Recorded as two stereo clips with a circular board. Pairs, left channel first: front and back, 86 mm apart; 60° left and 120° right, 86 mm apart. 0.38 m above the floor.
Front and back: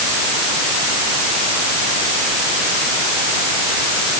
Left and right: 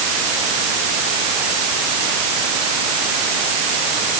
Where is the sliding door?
No sliding door in this recording.